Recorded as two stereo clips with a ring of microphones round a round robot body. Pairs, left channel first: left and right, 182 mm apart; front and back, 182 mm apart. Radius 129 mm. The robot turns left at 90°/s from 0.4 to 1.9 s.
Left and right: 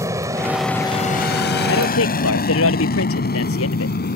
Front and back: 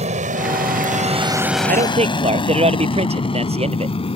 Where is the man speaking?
145° left; by 4.0 s 120° left.